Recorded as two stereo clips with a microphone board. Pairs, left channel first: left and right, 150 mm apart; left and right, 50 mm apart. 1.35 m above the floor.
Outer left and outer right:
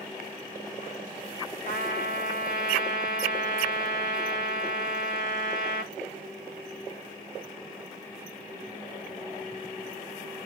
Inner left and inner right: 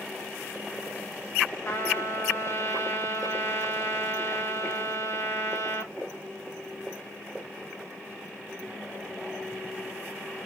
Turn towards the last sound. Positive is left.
turn(degrees=60)  # may be behind; listen again after turning